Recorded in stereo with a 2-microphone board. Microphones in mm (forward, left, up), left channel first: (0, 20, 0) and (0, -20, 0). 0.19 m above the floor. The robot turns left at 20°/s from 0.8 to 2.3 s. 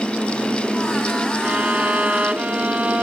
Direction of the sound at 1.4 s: 35° right (ahead or behind).